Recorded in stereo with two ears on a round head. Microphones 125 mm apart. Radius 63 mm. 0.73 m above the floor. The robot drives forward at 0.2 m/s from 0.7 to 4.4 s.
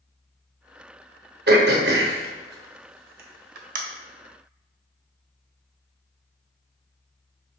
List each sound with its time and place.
1.5 s throat clearing: 70° right (ahead or behind), 0.7 m; by 3.8 s 65° right (ahead or behind), 0.7 m